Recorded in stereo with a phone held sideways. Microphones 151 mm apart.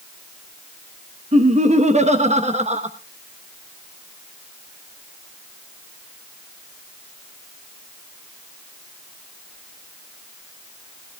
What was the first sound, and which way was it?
Laughter, 50° right (ahead or behind).